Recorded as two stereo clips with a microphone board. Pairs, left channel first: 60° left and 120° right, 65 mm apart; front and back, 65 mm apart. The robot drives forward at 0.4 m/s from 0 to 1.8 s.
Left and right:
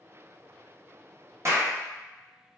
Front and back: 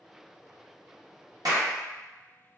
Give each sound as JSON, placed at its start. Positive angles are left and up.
{"t": 1.4, "sound": "a clap", "azimuth_deg": -165, "distance_m": 1.1}